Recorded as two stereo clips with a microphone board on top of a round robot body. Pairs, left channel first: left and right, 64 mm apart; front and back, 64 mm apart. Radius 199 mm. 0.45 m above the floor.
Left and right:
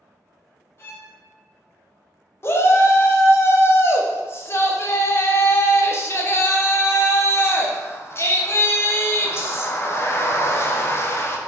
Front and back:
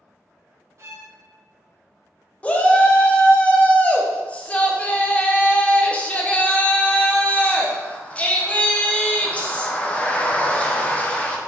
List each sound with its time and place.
0.8 s a violin: 140° left, 0.5 m
2.4 s a shout: 60° left, 1.0 m